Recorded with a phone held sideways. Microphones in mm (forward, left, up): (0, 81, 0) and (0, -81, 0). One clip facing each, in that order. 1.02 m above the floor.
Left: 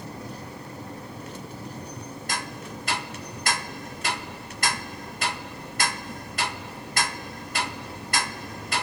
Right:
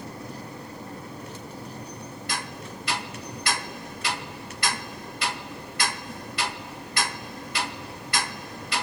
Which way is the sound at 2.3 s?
45° left (ahead or behind).